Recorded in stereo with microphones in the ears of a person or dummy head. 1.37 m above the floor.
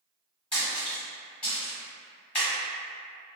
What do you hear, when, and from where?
0.5 s a splash: 10° left (ahead or behind), 1.1 m